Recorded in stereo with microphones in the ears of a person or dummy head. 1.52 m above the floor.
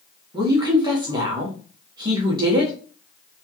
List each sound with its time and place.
0.3 s a woman speaking: 30° right (ahead or behind), 0.8 m